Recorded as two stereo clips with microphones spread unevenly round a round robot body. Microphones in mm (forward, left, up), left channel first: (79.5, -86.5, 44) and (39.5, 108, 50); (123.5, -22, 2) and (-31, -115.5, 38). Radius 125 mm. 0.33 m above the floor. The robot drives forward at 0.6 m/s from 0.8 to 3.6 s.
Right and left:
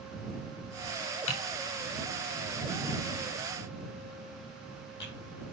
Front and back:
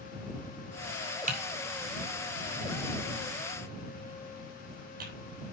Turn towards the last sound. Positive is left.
turn(degrees=-120)